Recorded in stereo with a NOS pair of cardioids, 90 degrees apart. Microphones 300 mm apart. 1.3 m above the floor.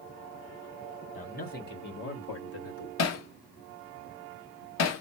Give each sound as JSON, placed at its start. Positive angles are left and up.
{"t": 1.1, "sound": "a man speaking", "azimuth_deg": 25, "distance_m": 2.5}
{"t": 3.0, "sound": "hammering", "azimuth_deg": 60, "distance_m": 1.1}